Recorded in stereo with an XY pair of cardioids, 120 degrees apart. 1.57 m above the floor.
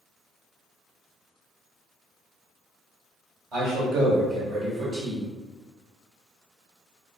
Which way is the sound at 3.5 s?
55° right.